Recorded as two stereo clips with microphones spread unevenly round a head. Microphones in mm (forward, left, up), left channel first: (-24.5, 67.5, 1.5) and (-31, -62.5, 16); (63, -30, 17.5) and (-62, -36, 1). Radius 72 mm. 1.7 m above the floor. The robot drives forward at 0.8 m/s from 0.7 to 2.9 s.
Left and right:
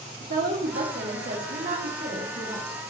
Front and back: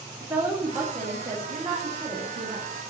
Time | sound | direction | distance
0.2 | a woman speaking | 105° right | 1.8 m